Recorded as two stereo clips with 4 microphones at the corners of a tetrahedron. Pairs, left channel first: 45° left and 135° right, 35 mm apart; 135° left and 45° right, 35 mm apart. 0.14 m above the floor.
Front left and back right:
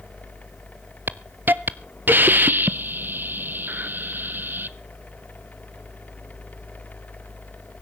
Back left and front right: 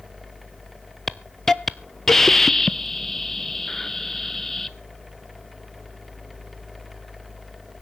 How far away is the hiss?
About 0.7 m.